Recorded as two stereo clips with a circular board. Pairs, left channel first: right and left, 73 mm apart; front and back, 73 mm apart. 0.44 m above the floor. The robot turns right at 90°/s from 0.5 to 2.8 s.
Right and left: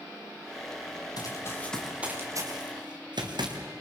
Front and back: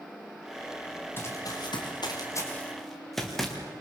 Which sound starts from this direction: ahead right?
Running footsteps, at 1.2 s.